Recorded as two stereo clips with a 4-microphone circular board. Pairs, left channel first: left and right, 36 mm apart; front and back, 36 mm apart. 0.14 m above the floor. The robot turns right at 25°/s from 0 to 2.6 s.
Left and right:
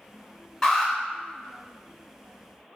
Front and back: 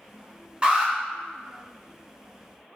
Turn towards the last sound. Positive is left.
turn(degrees=-160)